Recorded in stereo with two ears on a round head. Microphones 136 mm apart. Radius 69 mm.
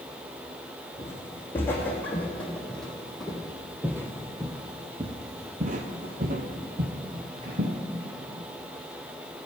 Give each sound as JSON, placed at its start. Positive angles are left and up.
{"t": 1.0, "sound": "footsteps", "side_deg": 15, "distance_m": 2.5}